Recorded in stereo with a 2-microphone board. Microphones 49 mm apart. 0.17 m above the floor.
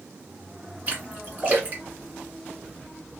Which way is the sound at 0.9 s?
35° right (ahead or behind).